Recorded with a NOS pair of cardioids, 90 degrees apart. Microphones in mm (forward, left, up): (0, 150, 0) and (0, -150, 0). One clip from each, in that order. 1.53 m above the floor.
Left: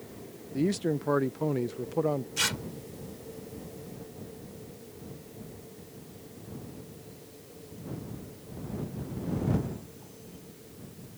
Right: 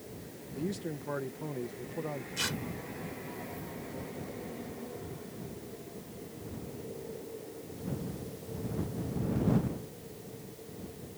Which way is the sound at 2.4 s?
50° left.